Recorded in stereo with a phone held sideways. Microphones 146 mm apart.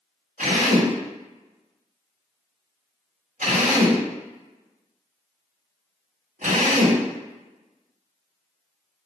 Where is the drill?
70° right (ahead or behind), 1.1 m.